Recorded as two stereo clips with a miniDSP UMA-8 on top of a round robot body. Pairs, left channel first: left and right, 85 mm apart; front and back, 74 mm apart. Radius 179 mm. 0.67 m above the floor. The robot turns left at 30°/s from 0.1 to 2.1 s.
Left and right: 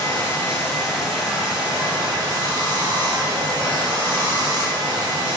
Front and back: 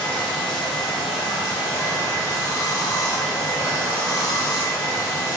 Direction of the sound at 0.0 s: 35° left.